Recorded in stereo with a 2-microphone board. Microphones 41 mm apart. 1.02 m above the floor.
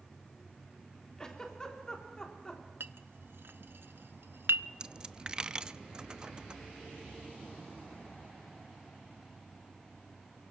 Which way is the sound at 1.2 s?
20° left (ahead or behind).